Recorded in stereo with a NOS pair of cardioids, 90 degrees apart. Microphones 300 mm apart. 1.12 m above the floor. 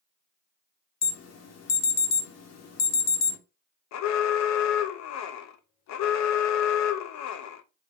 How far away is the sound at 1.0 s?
About 1.0 m.